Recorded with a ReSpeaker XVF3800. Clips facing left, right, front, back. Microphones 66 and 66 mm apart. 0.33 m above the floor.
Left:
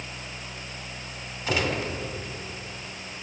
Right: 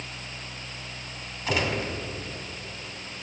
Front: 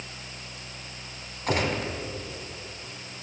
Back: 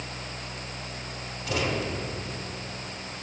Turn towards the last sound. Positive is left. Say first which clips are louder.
# even, front 2 dB
turn(degrees=10)